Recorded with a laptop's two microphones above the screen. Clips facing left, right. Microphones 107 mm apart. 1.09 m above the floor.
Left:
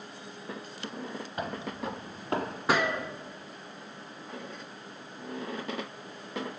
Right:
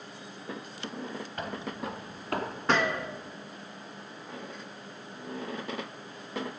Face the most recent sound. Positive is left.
turn(degrees=5)  # may be behind; listen again after turning